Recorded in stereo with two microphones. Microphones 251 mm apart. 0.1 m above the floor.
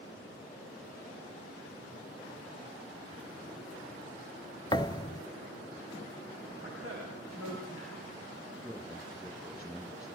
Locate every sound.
4.7 s a thud: 20° left (ahead or behind), 0.6 m
6.6 s a woman speaking: 60° right (ahead or behind), 10 m
8.6 s a man speaking: 10° right (ahead or behind), 4.5 m